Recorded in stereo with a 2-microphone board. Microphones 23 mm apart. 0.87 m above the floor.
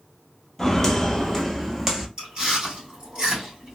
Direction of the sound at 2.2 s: 40° right (ahead or behind).